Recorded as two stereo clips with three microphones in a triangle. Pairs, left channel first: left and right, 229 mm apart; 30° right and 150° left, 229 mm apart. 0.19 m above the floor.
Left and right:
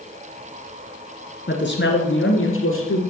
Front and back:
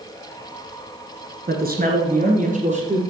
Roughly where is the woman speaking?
Behind left.